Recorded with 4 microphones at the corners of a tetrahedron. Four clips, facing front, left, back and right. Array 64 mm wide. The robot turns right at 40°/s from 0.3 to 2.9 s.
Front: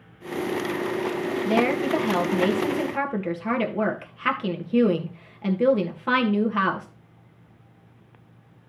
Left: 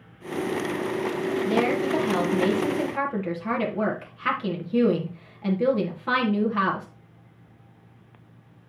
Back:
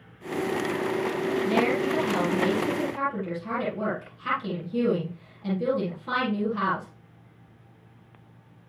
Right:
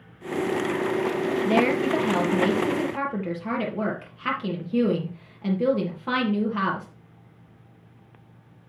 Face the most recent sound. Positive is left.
turn(degrees=-5)